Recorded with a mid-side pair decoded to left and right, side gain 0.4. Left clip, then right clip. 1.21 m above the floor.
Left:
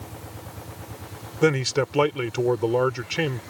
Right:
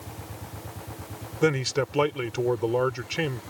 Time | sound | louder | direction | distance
1.4 | a man speaking | left 3 dB | 25° left | ?